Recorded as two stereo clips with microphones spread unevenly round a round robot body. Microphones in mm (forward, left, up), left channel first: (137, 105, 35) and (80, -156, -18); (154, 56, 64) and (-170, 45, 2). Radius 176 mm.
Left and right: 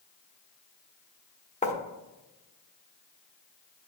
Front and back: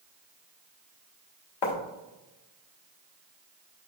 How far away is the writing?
About 1.6 m.